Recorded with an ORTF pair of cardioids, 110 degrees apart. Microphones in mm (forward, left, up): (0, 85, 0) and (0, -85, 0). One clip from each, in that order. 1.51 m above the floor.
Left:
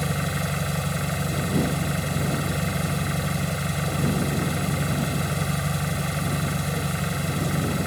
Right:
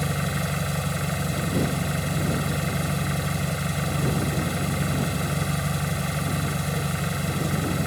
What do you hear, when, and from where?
0.0 s an engine running: straight ahead